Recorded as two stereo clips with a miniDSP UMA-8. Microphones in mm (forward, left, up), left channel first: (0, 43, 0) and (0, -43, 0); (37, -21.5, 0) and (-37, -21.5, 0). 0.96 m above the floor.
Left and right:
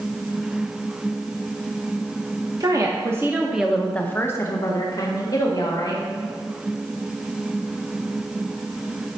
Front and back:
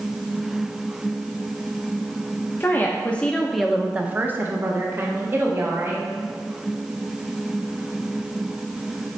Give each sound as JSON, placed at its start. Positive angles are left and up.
{"t": 2.6, "sound": "a woman speaking", "azimuth_deg": -55, "distance_m": 1.0}